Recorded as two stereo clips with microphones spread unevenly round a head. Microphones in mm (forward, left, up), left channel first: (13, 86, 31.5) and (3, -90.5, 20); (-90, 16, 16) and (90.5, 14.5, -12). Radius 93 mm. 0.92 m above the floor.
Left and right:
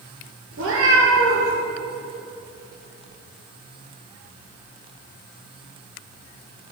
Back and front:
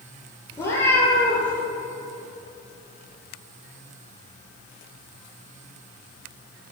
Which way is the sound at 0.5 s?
105° right.